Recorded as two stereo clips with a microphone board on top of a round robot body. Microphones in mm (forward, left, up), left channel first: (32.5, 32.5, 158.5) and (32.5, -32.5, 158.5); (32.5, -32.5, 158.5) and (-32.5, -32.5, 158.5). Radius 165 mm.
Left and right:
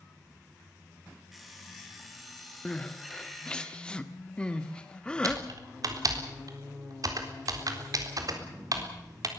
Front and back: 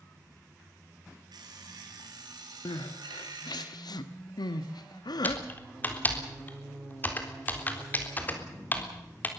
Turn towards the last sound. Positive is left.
turn(degrees=-65)